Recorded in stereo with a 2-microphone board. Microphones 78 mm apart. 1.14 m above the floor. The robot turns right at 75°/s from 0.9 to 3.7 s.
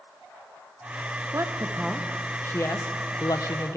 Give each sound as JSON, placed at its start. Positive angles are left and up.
{"t": 1.3, "sound": "a woman speaking", "side_deg": -40, "distance_m": 0.6}